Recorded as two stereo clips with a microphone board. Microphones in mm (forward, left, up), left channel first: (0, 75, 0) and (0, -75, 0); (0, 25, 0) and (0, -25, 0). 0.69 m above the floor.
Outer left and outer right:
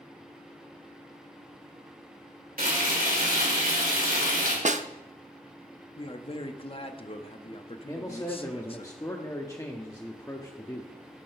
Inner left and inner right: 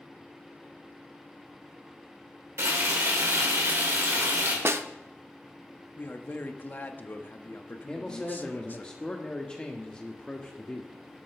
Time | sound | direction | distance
2.6 | frying | 70° right (ahead or behind) | 3 m
4.7 | a snare drum | 55° right (ahead or behind) | 0.6 m
6.0 | a man speaking | 40° left (ahead or behind) | 0.8 m
7.9 | a man speaking | 20° left (ahead or behind) | 0.9 m